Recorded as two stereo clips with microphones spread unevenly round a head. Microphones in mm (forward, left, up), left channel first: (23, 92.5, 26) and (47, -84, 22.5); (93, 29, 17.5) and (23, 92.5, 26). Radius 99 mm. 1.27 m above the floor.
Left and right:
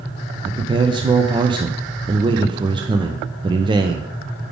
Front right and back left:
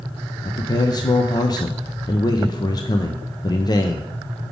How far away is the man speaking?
About 0.5 m.